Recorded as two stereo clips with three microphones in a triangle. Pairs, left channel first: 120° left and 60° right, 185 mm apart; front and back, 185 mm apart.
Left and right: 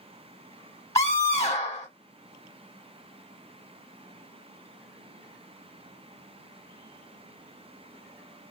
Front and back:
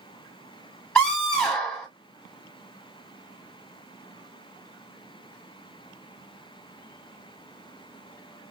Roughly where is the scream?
Ahead left.